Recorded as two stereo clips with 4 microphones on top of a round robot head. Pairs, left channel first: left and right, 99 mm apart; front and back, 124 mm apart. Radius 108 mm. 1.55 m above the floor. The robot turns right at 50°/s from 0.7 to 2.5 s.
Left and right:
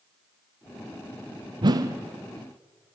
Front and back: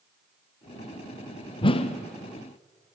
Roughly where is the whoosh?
Ahead right.